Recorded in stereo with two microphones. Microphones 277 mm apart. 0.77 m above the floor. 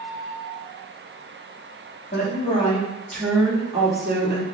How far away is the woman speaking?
About 1.2 m.